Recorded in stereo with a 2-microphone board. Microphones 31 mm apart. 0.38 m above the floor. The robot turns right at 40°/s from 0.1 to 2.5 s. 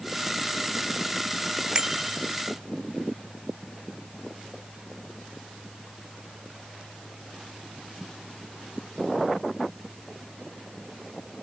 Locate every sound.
1.8 s a bicycle bell: 25° right (ahead or behind); by 2.2 s 5° right (ahead or behind)